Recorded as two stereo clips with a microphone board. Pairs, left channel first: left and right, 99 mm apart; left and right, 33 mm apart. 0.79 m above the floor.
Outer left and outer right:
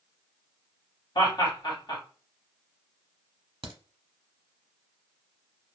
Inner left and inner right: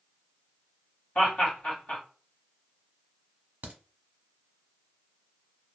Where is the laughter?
50° left (ahead or behind), 1.9 m.